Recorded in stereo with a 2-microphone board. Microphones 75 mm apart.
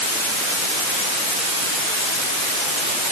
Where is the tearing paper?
I don't hear tearing paper.